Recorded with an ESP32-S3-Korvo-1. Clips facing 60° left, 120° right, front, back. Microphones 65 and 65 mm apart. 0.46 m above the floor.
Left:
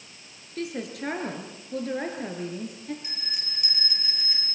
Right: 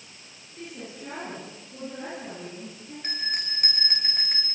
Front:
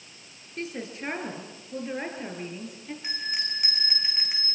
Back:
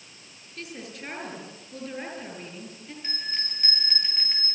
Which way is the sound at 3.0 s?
80° right.